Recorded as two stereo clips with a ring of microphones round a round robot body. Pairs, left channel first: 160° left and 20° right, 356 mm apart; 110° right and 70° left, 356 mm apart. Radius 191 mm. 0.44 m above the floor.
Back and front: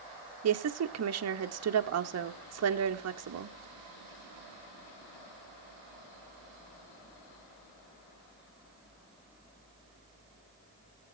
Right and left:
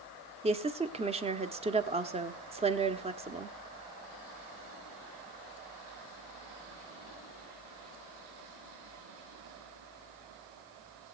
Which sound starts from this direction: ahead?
A woman speaking, at 0.4 s.